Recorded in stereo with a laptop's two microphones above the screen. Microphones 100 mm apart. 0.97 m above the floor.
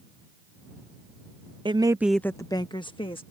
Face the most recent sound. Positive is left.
turn(degrees=60)  # may be behind; listen again after turning